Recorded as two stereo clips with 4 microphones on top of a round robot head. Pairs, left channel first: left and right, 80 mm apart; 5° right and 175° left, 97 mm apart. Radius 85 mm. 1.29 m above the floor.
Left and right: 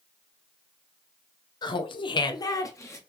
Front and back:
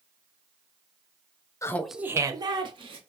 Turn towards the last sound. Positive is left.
turn(degrees=145)